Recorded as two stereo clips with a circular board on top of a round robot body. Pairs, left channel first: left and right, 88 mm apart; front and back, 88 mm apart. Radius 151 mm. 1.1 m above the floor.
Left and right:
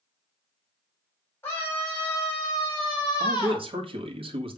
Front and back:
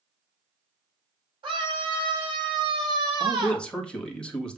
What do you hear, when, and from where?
1.4 s a scream: 155° left, 4 m; by 3.7 s 135° left, 3 m
3.2 s a man speaking: 80° right, 1.9 m